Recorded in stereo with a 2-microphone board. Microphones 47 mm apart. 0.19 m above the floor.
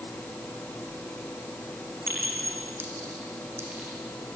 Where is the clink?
70° right (ahead or behind), 6 m.